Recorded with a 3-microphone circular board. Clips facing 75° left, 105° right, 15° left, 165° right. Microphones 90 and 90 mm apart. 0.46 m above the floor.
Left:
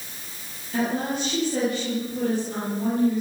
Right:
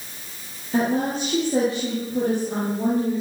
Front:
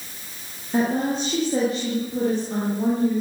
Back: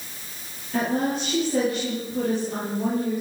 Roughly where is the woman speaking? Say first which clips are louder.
Right 3 dB, front 2 dB; ahead right.